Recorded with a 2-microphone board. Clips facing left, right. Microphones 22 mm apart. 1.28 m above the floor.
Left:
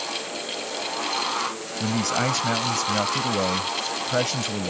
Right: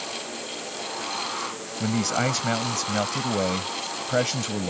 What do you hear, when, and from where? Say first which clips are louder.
1.8 s a man speaking: left 1 dB; 5° right (ahead or behind)